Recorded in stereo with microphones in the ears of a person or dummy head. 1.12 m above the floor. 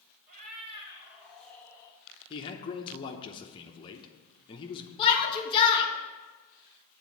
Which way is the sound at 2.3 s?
30° left (ahead or behind).